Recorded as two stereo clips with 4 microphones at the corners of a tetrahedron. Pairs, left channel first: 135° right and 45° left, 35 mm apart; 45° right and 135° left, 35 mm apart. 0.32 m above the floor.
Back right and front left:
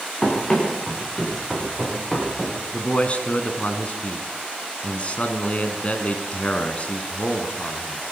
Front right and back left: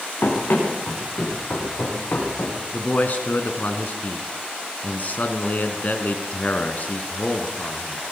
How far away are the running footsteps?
About 8.5 m.